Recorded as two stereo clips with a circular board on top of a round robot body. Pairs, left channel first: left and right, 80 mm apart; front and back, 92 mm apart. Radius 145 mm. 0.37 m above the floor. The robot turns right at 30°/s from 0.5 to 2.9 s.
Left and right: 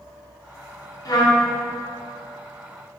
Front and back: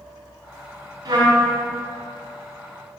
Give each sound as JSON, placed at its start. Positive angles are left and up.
{"t": 1.1, "sound": "a trumpet", "azimuth_deg": 130, "distance_m": 2.5}